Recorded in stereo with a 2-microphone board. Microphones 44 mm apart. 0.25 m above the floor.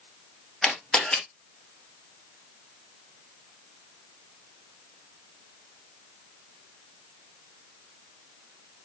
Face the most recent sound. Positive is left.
turn(degrees=15)  # may be behind; listen again after turning